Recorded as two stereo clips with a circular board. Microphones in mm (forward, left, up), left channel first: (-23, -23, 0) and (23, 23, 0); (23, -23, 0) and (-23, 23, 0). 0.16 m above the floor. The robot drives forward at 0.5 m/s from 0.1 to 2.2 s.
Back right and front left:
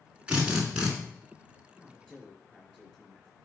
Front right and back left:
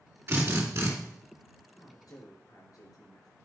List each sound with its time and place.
0.3 s a drill: 110° left, 2.5 m; by 0.9 s 120° left, 2.5 m
1.7 s a man speaking: 50° right, 3.5 m; by 3.3 s 55° right, 3.5 m